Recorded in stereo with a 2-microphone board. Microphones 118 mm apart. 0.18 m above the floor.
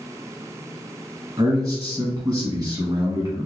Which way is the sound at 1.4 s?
35° right (ahead or behind).